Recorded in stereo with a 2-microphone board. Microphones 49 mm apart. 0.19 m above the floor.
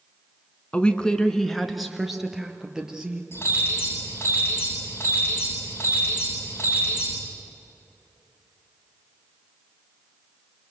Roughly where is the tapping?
No tapping in this recording.